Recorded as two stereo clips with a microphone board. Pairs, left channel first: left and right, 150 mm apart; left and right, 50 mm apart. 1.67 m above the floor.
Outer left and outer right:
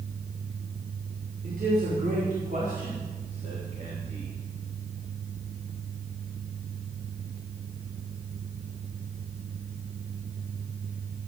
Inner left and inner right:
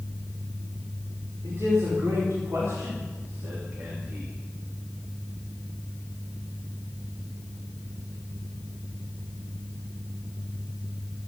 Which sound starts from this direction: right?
A man speaking, at 1.4 s.